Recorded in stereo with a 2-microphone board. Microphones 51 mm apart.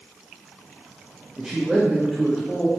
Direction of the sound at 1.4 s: 15° right (ahead or behind).